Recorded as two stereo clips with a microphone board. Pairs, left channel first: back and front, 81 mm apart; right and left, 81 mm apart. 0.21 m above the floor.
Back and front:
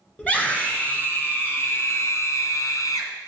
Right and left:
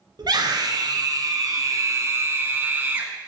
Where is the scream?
110° left, 2 m; by 3.3 s 165° left, 1.6 m.